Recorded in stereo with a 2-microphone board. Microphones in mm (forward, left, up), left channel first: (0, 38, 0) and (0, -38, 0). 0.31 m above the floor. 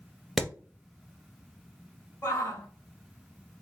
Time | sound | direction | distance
0.4 | hammering | centre (ahead or behind) | 1.0 m
2.2 | a shout | 30° left (ahead or behind) | 1.0 m